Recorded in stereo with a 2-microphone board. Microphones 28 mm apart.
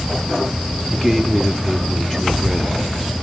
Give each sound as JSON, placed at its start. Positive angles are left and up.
{"t": 0.9, "sound": "a man speaking", "side_deg": 10, "distance_m": 1.5}